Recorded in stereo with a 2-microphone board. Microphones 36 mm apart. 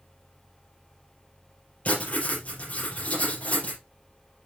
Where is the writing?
40° left (ahead or behind), 5 m.